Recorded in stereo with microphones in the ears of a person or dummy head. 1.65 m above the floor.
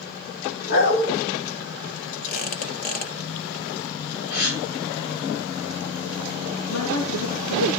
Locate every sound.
0.7 s a dog barking: 65° left (ahead or behind), 4 m
2.3 s a squeak: 50° left (ahead or behind), 1.8 m
4.3 s a gasp: 60° left (ahead or behind), 7 m
6.7 s a man speaking: 75° left (ahead or behind), 4.5 m